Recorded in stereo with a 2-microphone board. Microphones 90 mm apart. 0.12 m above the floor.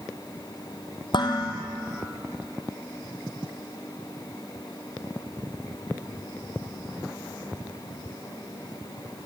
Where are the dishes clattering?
55° left (ahead or behind), 2.5 m.